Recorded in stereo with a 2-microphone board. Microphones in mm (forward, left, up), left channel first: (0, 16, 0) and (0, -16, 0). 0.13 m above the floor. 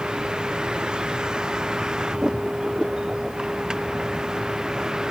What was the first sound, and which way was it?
A vehicle, 25° right (ahead or behind).